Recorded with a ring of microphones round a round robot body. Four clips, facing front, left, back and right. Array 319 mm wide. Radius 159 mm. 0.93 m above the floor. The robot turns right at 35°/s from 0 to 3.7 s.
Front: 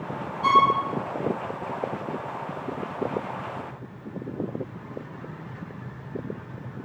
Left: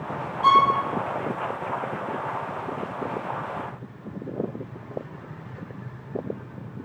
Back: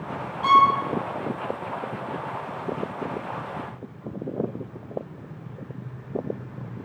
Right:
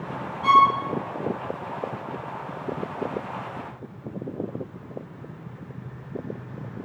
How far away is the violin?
About 3.5 m.